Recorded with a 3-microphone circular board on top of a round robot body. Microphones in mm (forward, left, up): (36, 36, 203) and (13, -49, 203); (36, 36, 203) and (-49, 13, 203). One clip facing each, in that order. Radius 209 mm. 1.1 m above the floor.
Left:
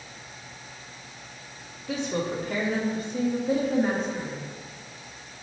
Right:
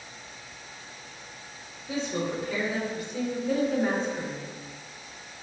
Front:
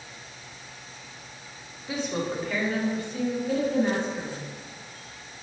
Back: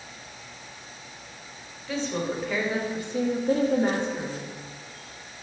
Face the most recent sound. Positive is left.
turn(degrees=175)